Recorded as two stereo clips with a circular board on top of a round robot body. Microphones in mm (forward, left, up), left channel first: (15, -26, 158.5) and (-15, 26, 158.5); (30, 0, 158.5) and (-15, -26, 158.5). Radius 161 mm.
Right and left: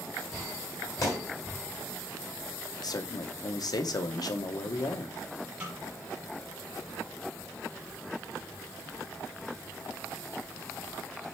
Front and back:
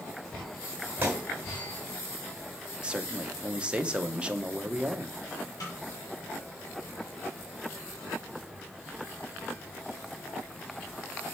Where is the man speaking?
80° right, 0.8 m.